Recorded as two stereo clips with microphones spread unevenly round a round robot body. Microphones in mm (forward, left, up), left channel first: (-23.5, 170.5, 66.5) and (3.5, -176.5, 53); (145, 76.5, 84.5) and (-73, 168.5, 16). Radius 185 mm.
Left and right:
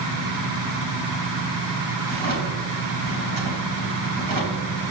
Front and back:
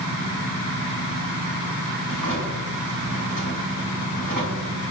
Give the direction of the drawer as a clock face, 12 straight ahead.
2 o'clock.